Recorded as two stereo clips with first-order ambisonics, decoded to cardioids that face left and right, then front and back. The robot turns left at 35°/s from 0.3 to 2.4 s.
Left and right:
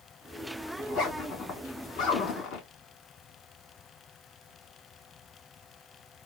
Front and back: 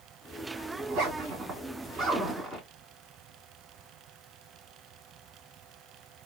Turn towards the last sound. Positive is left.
turn(degrees=90)